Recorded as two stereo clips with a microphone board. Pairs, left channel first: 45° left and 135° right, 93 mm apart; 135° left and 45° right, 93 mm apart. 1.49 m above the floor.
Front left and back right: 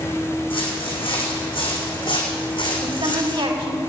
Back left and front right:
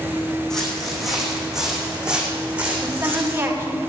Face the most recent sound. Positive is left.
turn(degrees=-110)